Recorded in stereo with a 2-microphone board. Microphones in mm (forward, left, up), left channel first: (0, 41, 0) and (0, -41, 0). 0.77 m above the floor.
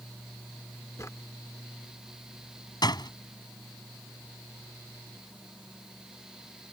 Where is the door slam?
55° left (ahead or behind).